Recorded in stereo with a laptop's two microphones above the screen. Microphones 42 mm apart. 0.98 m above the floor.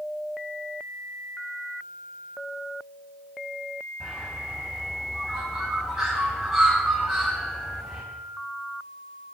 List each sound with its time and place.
4.0 s a bird: 5° right (ahead or behind), 6.5 m